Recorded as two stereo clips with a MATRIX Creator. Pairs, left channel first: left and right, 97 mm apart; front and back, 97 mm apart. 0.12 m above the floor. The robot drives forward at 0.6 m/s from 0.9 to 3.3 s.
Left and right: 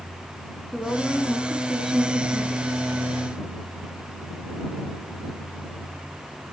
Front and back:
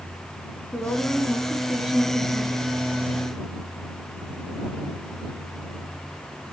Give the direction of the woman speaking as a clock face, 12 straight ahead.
12 o'clock.